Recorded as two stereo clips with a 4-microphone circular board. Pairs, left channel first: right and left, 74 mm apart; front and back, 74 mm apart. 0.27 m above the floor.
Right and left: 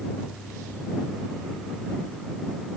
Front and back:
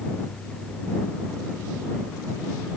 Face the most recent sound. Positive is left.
No sound to turn to.